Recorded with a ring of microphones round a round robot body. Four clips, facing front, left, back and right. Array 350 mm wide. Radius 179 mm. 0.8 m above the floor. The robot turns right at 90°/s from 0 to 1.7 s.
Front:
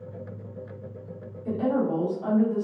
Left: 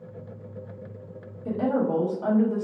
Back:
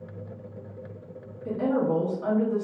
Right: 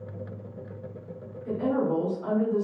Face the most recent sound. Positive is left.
turn(degrees=105)